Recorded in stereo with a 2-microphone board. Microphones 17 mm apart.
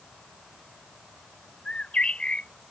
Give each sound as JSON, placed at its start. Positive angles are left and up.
{"t": 1.6, "sound": "a bird", "side_deg": 75}